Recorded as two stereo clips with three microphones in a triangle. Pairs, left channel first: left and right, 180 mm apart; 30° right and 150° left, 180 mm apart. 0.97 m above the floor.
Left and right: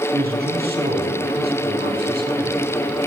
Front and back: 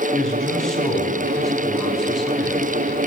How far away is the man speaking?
About 8.5 m.